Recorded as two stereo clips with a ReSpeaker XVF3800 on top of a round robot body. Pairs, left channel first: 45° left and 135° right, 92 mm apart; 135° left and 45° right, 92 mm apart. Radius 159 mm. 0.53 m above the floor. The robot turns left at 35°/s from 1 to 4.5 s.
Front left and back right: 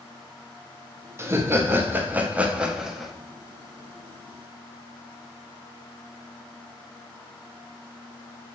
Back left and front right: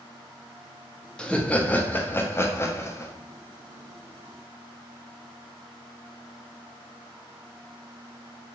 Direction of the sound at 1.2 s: 155° right.